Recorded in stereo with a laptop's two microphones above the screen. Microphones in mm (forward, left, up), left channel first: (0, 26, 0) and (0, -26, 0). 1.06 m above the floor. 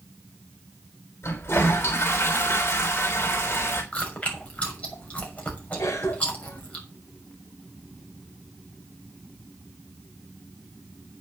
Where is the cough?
75° left (ahead or behind), 4 m.